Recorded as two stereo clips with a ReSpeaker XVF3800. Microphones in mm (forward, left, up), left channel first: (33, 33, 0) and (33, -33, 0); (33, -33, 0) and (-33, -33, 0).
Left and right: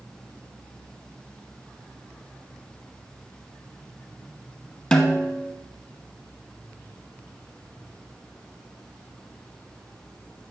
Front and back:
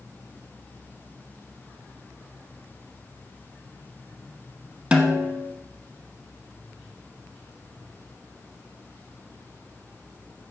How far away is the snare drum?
About 0.7 m.